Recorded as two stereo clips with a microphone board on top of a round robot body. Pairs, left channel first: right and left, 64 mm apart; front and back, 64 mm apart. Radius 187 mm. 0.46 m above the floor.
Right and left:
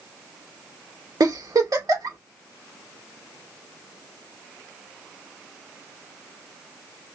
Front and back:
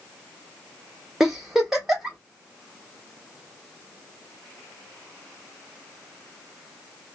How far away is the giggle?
About 2 m.